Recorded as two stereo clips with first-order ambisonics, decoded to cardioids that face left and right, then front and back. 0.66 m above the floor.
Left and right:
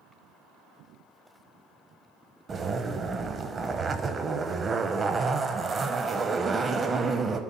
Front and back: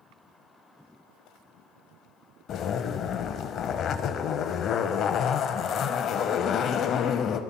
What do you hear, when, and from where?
2.5 s a zipper: 30° right, 0.5 m